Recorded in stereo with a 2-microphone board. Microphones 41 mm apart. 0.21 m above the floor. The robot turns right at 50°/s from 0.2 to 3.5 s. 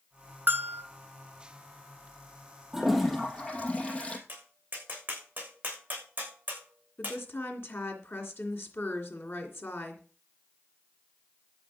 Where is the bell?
55° right (ahead or behind), 1.2 m; by 0.8 s 70° right (ahead or behind), 1.2 m.